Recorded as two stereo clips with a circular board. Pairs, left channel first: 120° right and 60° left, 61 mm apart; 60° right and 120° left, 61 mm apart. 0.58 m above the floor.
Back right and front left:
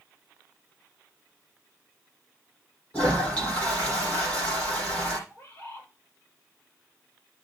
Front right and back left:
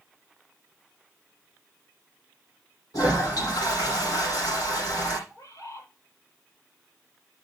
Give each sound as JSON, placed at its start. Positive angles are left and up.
{"t": 2.9, "sound": "a toilet flushing", "azimuth_deg": -50, "distance_m": 8.5}
{"t": 5.3, "sound": "a bird", "azimuth_deg": -70, "distance_m": 7.0}